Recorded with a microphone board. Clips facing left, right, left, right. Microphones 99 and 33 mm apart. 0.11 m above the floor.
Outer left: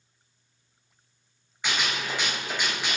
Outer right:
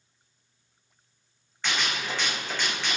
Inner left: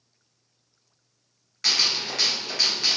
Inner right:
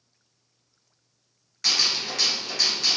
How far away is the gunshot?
About 0.9 m.